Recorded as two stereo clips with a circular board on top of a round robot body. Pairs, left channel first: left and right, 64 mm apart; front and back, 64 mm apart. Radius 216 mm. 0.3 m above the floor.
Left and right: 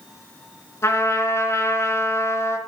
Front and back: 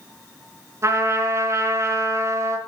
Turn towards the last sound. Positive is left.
turn(degrees=135)